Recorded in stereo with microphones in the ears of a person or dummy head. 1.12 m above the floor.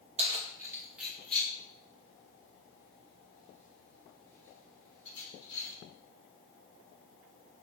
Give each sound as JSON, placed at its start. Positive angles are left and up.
{"t": 0.2, "sound": "keys jangling", "side_deg": -35, "distance_m": 0.5}